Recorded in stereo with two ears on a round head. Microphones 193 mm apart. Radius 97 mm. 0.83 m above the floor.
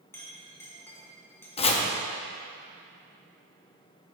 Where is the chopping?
30° left (ahead or behind), 0.7 m.